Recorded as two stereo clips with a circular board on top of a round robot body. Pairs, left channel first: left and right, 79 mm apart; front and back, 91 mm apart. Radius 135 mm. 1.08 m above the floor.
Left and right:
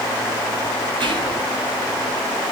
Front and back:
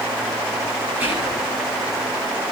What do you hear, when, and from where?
1.0 s whispering: 110° right, 8 m